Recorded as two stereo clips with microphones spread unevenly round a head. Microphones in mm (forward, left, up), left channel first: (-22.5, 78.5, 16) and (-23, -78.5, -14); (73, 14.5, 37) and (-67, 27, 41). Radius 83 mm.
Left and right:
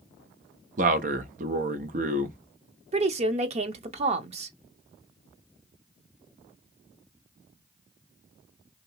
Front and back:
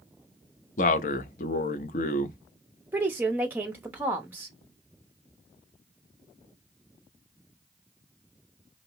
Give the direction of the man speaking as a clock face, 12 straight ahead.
1 o'clock.